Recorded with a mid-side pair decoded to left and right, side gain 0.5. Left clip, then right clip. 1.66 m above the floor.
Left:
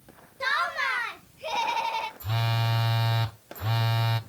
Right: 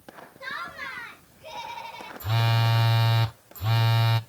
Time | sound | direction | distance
0.4 | laughter | 65° left | 0.8 m
2.2 | a phone buzzing | 15° right | 0.8 m